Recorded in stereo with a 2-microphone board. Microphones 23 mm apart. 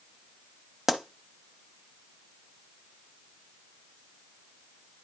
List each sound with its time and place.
0.9 s a pop: 10° right (ahead or behind), 0.6 m